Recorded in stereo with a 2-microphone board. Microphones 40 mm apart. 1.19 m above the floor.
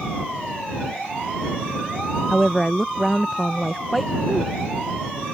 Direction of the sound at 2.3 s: Centre (ahead or behind).